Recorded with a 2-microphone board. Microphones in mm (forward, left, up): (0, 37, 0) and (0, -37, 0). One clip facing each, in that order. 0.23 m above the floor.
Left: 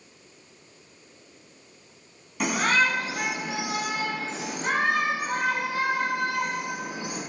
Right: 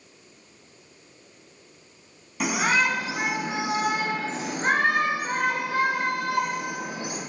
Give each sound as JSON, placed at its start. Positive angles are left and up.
{"t": 2.4, "sound": "a shout", "side_deg": 0, "distance_m": 1.7}